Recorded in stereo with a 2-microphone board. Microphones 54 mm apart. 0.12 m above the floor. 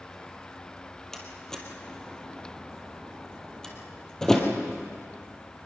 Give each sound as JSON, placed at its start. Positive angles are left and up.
{"t": 1.1, "sound": "a door slam", "side_deg": 10, "distance_m": 2.5}